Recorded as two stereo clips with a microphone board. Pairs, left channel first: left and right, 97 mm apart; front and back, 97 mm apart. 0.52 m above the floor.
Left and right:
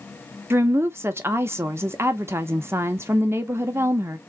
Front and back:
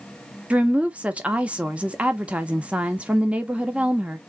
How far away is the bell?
No bell in this recording.